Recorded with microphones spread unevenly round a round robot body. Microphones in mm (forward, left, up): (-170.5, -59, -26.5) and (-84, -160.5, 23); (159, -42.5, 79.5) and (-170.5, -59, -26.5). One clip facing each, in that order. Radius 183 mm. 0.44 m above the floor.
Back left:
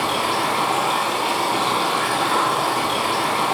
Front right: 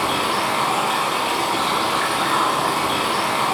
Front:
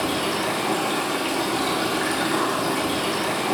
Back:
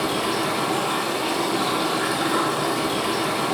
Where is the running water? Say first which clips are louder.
Even, back 1 dB; 80° left, 1.0 m.